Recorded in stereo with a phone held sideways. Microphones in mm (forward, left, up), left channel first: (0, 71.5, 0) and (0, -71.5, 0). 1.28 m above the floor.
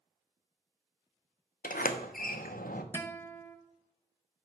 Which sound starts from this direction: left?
A sliding door, at 1.6 s.